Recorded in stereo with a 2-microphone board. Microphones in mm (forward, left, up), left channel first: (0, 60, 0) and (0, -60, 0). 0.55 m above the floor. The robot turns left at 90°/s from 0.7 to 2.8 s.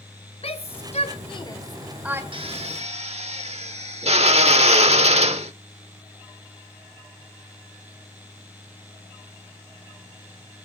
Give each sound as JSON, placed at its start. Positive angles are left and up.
{"t": 0.4, "sound": "a shout", "side_deg": 55, "distance_m": 2.5}
{"t": 2.3, "sound": "a drill", "azimuth_deg": -55, "distance_m": 1.3}